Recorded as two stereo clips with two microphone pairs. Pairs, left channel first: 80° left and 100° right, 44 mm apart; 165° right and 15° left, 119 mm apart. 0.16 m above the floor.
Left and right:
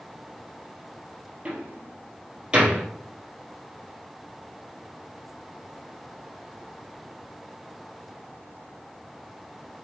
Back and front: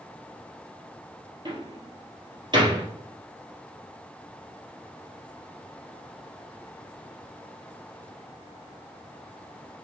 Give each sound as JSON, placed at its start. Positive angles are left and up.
{"t": 1.4, "sound": "a door slam", "azimuth_deg": -35, "distance_m": 3.0}